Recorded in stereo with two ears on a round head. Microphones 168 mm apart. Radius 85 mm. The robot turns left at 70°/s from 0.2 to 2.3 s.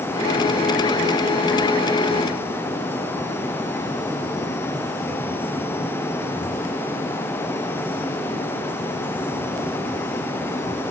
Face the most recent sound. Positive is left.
No sound to turn to.